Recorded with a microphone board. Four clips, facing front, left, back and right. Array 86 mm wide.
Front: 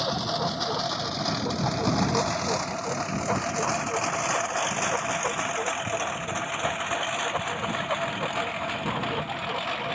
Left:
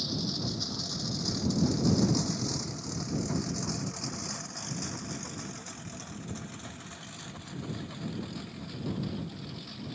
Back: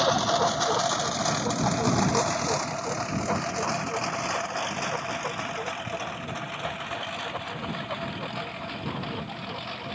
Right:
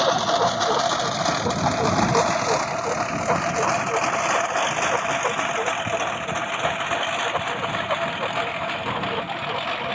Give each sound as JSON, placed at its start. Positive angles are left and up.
{"t": 0.0, "sound": "a lawn mower", "azimuth_deg": -115}